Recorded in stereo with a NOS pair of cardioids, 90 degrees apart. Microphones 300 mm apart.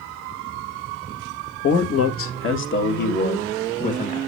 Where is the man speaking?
55° left, 2 m; by 4.2 s 20° left, 2.5 m.